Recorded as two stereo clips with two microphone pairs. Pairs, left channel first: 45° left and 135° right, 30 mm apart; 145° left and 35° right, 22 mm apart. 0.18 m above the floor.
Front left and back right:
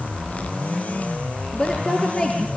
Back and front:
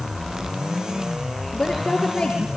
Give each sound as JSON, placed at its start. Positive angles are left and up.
{"t": 1.5, "sound": "a woman speaking", "azimuth_deg": 105, "distance_m": 3.5}